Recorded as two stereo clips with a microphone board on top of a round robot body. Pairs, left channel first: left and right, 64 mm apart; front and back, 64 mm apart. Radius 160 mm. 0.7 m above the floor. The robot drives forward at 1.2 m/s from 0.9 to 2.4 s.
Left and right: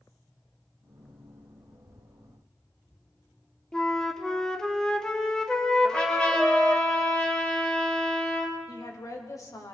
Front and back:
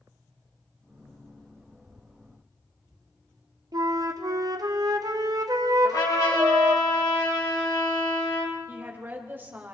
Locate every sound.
3.7 s a flute: 170° left, 1.8 m
5.8 s a trumpet: 15° left, 4 m
8.7 s a woman speaking: 120° left, 4 m